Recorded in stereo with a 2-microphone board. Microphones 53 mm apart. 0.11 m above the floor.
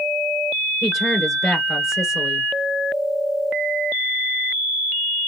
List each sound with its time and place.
0.8 s a woman speaking: 5° right (ahead or behind), 1.6 m